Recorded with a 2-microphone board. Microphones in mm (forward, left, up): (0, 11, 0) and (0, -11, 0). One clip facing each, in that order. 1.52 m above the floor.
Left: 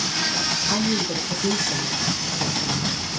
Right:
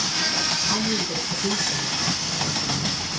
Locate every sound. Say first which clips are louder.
0.7 s a woman speaking: left 1 dB; 20° left (ahead or behind), 1.4 m; by 2.9 s 65° left (ahead or behind), 1.9 m